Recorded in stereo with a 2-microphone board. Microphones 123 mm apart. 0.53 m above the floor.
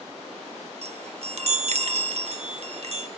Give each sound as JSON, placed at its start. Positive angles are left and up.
{"t": 0.8, "sound": "a chime", "side_deg": -60, "distance_m": 0.5}